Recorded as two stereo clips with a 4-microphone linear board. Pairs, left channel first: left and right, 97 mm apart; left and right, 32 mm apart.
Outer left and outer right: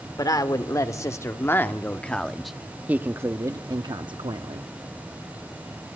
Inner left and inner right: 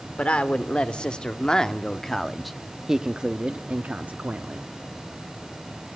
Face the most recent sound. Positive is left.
turn(degrees=-65)  # may be behind; listen again after turning